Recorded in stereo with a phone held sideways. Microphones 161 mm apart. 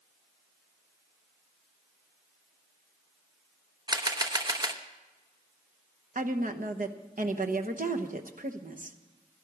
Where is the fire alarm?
No fire alarm in this recording.